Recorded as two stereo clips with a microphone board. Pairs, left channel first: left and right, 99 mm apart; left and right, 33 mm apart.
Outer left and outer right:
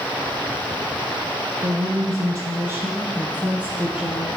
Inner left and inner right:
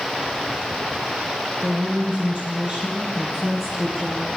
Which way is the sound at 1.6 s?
35° right (ahead or behind).